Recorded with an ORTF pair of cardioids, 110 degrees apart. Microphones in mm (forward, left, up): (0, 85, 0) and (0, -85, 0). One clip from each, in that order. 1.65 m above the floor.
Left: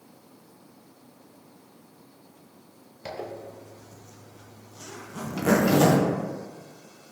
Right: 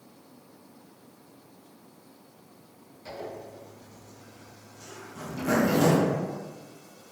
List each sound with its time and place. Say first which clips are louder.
3.0 s a zipper: left 3 dB; 60° left, 0.6 m